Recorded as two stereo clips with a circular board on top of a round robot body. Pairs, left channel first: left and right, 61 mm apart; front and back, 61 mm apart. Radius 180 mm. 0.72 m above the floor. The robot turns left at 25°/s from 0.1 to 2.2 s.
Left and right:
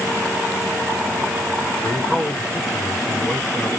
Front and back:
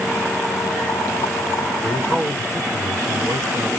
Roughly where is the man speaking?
Behind.